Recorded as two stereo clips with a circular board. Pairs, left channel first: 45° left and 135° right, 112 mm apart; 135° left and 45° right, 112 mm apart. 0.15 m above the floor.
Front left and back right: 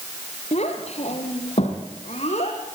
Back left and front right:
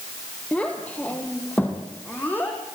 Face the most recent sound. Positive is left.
turn(degrees=60)